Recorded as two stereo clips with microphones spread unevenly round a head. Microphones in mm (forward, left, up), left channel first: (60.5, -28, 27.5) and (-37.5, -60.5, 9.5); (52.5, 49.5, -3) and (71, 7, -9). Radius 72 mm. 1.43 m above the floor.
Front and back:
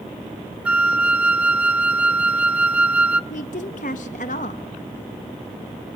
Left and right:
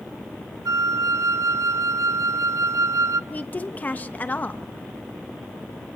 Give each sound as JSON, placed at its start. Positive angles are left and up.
{"t": 0.7, "sound": "a flute", "azimuth_deg": -80, "distance_m": 0.9}
{"t": 3.3, "sound": "a woman speaking", "azimuth_deg": 60, "distance_m": 1.4}